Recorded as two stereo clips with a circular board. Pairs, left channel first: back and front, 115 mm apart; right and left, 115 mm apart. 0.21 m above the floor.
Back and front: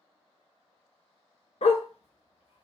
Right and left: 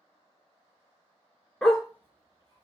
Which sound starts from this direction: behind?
A dog barking, at 1.6 s.